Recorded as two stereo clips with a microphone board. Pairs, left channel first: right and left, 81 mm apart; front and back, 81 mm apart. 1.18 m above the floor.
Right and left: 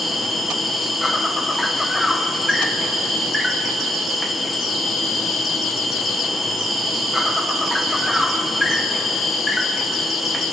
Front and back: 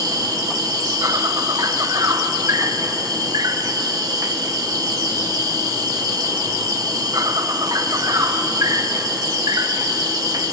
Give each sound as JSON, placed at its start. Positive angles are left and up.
{"t": 0.0, "sound": "an insect", "azimuth_deg": 180, "distance_m": 1.4}